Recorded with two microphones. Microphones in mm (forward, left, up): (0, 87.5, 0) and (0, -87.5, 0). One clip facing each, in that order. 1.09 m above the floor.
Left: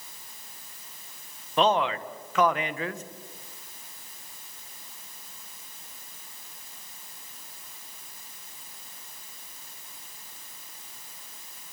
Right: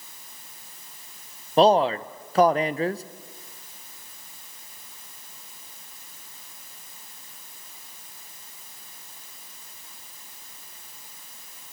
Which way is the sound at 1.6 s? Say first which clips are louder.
Right 6 dB; 35° right (ahead or behind).